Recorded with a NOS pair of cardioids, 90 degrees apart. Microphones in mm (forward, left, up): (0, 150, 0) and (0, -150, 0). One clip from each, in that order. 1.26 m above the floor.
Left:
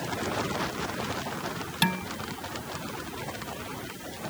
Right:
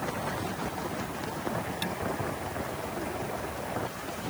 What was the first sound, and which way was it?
Dishes clattering, 65° left.